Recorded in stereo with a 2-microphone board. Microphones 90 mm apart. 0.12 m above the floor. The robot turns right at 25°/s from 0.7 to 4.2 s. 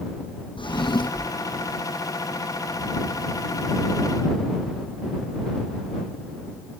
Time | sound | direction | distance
0.6 | a drawer | 75° left (ahead or behind) | ?